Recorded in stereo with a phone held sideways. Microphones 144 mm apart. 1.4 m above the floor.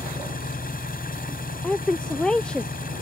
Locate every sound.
0.0 s an engine running: 75° left (ahead or behind)
1.6 s a woman speaking: 5° left (ahead or behind)